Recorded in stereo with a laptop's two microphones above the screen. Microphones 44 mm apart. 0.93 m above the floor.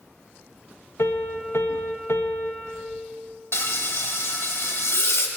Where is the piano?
65° left (ahead or behind), 0.5 m.